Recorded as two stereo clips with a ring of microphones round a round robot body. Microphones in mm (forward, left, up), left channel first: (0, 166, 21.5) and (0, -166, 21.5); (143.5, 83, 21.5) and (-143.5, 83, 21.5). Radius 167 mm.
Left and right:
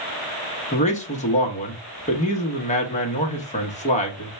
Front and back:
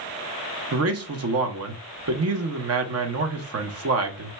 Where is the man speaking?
155° left, 0.9 m.